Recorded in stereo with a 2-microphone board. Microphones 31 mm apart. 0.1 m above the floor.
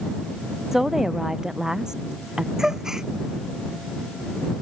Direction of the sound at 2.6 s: 20° right (ahead or behind).